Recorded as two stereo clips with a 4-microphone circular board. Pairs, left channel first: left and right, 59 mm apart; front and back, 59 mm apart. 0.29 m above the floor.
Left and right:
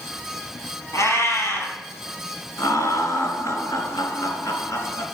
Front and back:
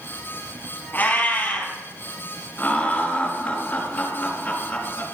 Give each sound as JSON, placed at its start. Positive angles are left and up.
{"t": 0.9, "sound": "a cat meowing", "azimuth_deg": 60, "distance_m": 4.5}
{"t": 2.6, "sound": "laughter", "azimuth_deg": 65, "distance_m": 3.5}